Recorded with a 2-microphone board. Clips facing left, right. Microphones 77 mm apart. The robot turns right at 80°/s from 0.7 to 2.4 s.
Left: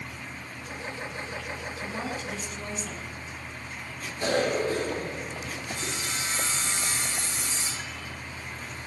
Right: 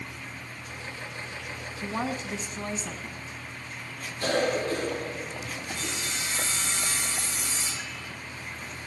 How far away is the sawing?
About 5 m.